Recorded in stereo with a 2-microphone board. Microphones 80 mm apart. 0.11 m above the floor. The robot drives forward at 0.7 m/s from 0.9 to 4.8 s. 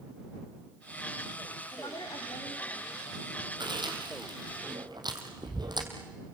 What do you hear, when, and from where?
1.7 s a woman speaking: 65° left (ahead or behind), 7 m; by 3.2 s 70° left (ahead or behind), 6.5 m
3.6 s chewing: 70° right (ahead or behind), 3.5 m; by 5.9 s 65° right (ahead or behind), 3.5 m